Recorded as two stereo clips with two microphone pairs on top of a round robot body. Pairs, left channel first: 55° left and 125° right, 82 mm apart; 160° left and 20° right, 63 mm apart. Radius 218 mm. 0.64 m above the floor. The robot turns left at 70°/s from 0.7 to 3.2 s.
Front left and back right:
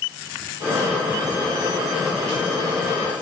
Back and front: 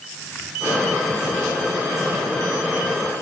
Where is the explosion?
No explosion in this recording.